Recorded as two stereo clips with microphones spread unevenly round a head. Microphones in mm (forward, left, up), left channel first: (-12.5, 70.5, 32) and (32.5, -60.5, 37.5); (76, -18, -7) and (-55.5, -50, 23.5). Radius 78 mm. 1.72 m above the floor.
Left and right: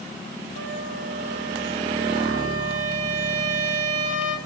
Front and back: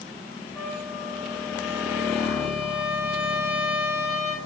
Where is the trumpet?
80° right, 4 m.